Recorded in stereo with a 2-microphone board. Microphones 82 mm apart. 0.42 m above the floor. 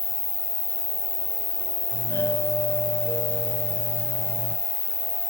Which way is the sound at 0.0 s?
30° right (ahead or behind).